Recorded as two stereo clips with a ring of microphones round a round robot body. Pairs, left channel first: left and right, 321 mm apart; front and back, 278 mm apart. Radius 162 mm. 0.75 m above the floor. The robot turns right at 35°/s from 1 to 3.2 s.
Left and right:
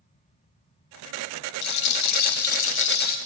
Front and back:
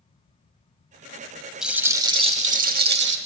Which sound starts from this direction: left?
A rattle, at 1.6 s.